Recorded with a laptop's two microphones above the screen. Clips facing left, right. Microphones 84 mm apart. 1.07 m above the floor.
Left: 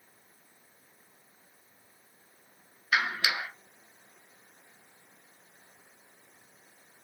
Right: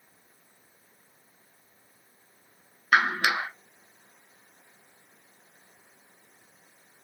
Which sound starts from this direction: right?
A clap, at 2.9 s.